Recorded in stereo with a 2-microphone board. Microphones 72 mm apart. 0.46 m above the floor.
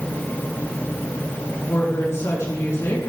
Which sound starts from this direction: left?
A woman speaking, at 1.7 s.